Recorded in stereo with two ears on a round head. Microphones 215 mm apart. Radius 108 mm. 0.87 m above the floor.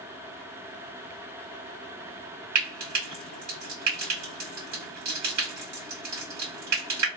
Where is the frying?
85° right, 1.7 m.